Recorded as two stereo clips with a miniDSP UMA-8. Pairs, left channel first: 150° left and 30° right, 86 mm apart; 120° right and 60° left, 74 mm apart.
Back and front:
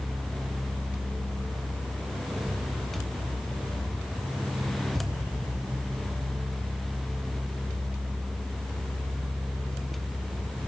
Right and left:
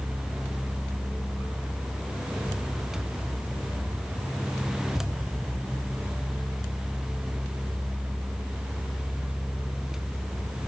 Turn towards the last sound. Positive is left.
No sound to turn to.